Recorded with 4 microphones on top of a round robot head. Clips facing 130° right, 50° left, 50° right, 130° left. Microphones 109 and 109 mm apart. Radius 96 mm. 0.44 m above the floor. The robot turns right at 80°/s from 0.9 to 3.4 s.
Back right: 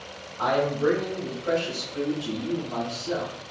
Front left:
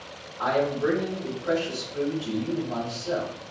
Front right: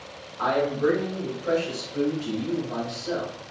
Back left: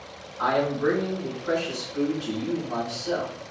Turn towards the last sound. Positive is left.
turn(degrees=85)